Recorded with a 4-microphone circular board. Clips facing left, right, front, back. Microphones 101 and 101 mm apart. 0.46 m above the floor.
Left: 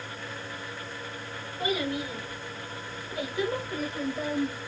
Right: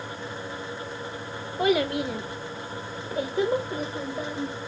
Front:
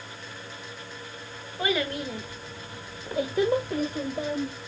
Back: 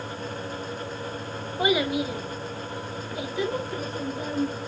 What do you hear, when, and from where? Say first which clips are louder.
1.6 s a child speaking: right 7 dB, back 4 dB; 110° right, 0.9 m; by 4.5 s 10° right, 1.3 m